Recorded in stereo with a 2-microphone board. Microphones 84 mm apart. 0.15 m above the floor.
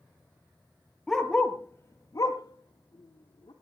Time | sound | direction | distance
1.1 | a dog barking | centre (ahead or behind) | 1.8 m